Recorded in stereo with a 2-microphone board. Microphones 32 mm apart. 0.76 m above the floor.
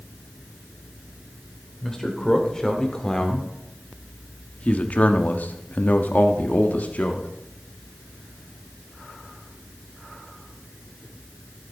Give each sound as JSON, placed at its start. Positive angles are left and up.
{"t": 1.8, "sound": "a man speaking", "side_deg": 15, "distance_m": 3.0}